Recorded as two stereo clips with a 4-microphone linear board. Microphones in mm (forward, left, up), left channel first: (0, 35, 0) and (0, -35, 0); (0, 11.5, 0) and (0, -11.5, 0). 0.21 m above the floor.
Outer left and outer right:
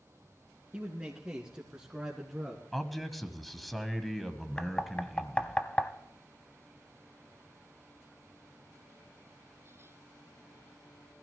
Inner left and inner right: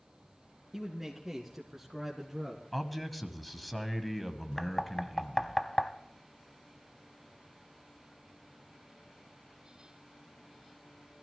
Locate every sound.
0.7 s a man speaking: 20° right (ahead or behind), 3 m; by 2.6 s 5° right (ahead or behind), 1.8 m
2.7 s a man speaking: centre (ahead or behind), 1.3 m
4.6 s knocking: 20° left (ahead or behind), 0.8 m